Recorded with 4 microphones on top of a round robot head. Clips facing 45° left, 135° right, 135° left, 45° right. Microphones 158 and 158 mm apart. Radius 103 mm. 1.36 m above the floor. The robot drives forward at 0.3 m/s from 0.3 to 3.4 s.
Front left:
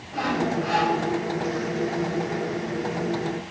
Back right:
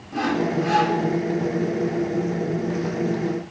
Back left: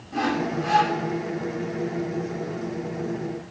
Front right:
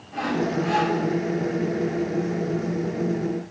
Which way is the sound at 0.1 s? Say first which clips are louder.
Back right 3 dB, front right 1 dB; straight behind.